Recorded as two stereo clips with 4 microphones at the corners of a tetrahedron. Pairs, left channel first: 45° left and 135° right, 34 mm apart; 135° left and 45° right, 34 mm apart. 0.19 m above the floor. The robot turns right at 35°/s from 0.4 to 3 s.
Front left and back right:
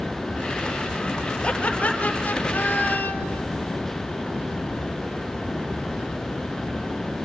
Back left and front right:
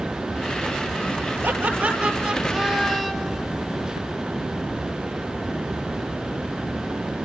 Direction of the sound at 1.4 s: 15° right.